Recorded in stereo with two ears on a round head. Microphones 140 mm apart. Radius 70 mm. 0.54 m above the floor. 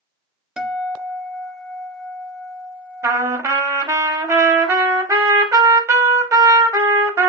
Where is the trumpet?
20° right (ahead or behind), 0.7 m.